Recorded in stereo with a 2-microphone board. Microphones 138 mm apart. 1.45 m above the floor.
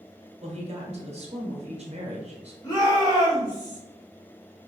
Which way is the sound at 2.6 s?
25° left (ahead or behind).